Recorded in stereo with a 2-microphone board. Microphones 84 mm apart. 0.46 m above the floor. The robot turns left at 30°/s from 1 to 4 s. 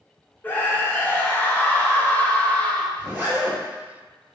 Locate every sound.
0.4 s a scream: 25° left (ahead or behind), 0.7 m; by 2.9 s 15° left (ahead or behind), 0.7 m
3.0 s a zipper: 10° right (ahead or behind), 1.8 m; by 3.6 s 30° right (ahead or behind), 1.8 m